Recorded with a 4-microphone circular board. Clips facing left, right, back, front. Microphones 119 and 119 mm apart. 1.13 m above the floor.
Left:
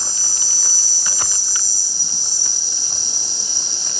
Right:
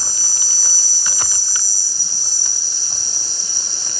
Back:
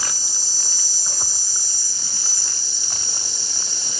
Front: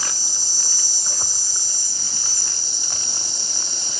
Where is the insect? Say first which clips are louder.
Even, even; 40° left, 1.2 m.